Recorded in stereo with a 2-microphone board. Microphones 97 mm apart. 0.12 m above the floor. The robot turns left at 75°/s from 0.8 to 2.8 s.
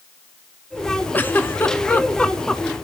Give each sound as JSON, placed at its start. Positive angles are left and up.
{"t": 1.1, "sound": "a giggle", "side_deg": 20, "distance_m": 0.8}